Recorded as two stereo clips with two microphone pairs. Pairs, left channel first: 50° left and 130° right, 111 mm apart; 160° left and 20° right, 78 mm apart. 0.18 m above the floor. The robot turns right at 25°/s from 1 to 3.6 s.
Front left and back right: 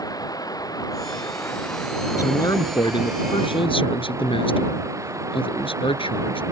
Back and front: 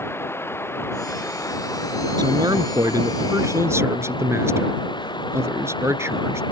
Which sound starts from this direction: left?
Running water, at 0.0 s.